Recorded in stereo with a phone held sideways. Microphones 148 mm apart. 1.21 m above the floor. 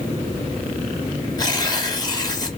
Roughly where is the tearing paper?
Left.